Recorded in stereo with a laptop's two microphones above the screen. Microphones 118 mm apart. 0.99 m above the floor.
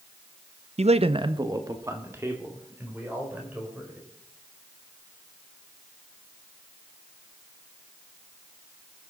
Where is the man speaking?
65° right (ahead or behind), 0.6 m; by 4.0 s 15° right (ahead or behind), 4.5 m.